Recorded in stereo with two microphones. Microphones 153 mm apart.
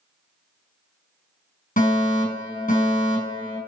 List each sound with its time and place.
1.8 s a fire alarm: 70° left (ahead or behind), 6 m